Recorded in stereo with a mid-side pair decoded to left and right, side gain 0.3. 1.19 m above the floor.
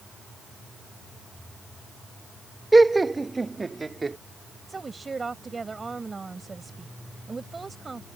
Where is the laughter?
25° right; by 4.2 s 35° right.